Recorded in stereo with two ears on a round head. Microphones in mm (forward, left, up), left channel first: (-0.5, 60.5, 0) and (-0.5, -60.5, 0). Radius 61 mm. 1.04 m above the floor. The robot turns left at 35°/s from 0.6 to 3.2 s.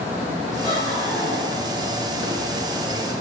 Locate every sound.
0.6 s laughter: 145° left, 5.5 m; by 1.8 s 105° left, 5.5 m